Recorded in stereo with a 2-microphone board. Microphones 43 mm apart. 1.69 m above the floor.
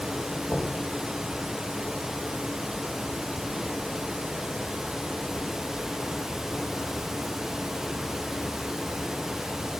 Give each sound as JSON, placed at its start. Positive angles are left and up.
{"t": 0.5, "sound": "knocking", "side_deg": 75, "distance_m": 4.0}